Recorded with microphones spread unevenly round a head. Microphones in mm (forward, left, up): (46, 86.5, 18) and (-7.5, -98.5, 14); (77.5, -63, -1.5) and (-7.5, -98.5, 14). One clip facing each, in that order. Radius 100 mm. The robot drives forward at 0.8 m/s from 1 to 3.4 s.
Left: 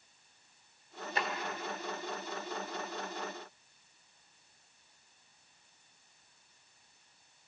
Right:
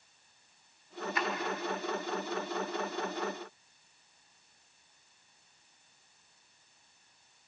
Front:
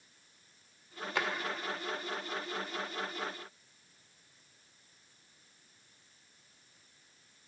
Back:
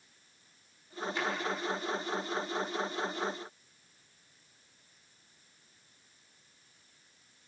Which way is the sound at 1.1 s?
15° left.